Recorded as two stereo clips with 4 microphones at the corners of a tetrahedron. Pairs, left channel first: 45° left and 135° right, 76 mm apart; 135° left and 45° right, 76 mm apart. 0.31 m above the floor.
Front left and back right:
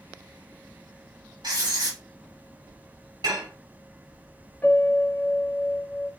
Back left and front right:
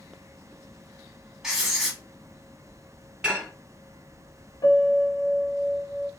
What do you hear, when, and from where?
1.4 s writing: 130° right, 1.3 m
3.2 s dishes clattering: 125° right, 1.8 m
4.6 s a piano: 115° left, 1.0 m